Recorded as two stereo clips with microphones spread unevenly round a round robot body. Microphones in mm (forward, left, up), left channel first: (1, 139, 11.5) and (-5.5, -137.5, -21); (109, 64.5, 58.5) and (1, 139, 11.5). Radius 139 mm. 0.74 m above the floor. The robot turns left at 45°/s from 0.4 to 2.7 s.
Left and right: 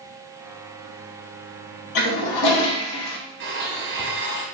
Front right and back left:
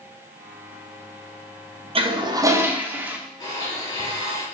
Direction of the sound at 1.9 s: 105° left.